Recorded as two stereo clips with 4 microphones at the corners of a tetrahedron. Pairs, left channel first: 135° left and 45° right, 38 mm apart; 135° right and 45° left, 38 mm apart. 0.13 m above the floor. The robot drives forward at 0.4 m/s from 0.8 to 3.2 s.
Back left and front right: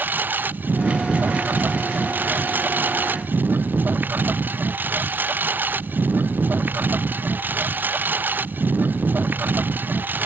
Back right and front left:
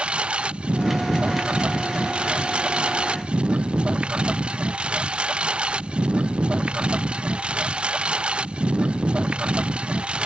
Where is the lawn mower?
15° right.